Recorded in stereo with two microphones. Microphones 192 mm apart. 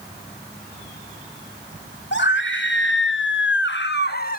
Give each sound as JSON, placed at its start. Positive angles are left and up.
{"t": 2.1, "sound": "a scream", "side_deg": 70, "distance_m": 2.5}